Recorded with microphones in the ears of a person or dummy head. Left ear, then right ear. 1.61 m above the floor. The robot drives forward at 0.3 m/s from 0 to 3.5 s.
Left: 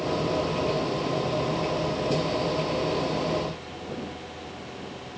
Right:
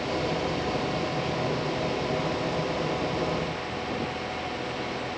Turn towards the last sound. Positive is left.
No sound to turn to.